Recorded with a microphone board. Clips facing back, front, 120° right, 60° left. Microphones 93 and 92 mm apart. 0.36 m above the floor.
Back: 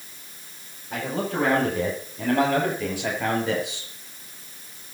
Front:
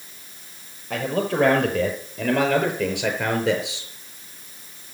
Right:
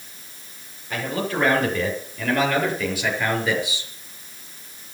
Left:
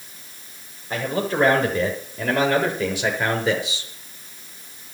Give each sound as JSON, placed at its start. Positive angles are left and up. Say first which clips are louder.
{"t": 0.9, "sound": "a man speaking", "louder": "front 4 dB, left 2 dB", "azimuth_deg": -5, "distance_m": 8.0}